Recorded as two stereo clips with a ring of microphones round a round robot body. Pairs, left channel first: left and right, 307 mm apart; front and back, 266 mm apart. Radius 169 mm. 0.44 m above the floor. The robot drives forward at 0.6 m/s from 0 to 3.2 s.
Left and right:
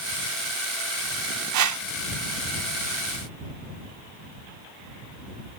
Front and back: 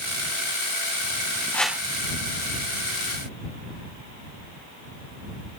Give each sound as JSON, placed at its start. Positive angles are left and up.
{"t": 1.5, "sound": "a whoosh", "azimuth_deg": -80}